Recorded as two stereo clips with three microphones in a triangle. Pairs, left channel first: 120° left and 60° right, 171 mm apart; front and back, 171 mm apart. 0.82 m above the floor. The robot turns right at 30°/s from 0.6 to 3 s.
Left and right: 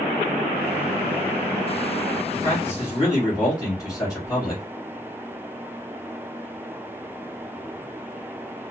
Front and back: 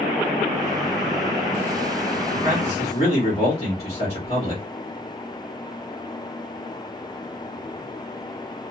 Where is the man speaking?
35° left, 1.4 m; by 4.6 s 55° left, 1.4 m.